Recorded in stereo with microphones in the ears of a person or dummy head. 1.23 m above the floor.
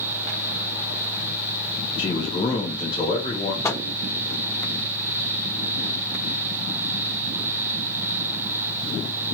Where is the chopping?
I don't hear chopping.